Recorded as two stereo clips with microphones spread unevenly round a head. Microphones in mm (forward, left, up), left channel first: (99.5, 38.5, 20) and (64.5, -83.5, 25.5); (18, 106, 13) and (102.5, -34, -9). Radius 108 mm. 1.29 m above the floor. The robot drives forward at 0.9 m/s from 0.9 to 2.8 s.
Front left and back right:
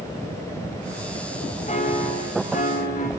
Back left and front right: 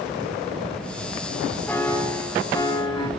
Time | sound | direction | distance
1.7 | a piano | 45° left | 3.5 m